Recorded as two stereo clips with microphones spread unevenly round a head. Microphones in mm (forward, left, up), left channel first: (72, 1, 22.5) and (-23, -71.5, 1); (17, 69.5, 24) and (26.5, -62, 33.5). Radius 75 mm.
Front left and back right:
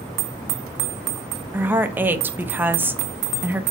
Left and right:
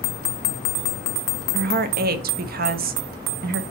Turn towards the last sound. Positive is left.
turn(degrees=-65)